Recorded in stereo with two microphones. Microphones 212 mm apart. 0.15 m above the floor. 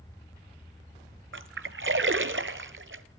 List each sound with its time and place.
1.3 s a splash: 65° right (ahead or behind), 0.8 m